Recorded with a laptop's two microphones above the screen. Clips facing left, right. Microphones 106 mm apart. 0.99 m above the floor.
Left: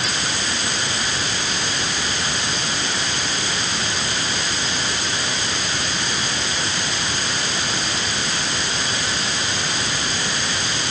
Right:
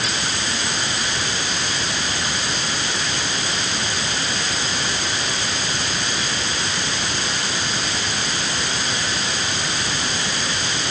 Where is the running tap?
I don't hear a running tap.